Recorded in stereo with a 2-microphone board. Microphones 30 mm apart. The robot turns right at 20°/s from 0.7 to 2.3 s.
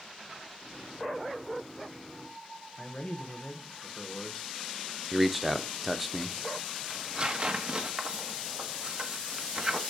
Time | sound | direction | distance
2.8 | a man speaking | 40° left (ahead or behind) | 1.3 m
5.1 | a man speaking | 5° right (ahead or behind) | 0.6 m
6.9 | tearing paper | 35° right (ahead or behind) | 0.8 m